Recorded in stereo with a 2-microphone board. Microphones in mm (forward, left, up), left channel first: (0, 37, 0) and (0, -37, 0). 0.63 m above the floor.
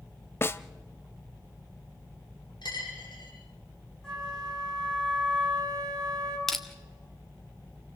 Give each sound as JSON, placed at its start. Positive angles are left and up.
{"t": 0.4, "sound": "a snare drum", "side_deg": 35, "distance_m": 0.6}
{"t": 2.6, "sound": "a dropped coin", "side_deg": 85, "distance_m": 9.5}
{"t": 4.0, "sound": "a flute", "side_deg": 10, "distance_m": 5.5}
{"t": 6.5, "sound": "crushing", "side_deg": 5, "distance_m": 1.4}